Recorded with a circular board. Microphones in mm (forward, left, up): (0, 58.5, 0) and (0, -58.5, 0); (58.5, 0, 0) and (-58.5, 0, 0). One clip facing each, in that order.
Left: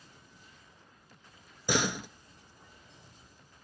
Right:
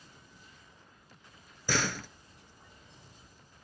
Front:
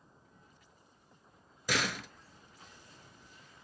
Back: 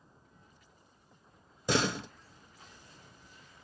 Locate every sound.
1.7 s a door slam: 150° left, 0.9 m